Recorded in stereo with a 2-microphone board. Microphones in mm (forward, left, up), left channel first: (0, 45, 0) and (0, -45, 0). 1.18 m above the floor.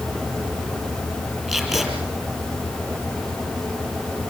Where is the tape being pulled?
5° right (ahead or behind), 4 m.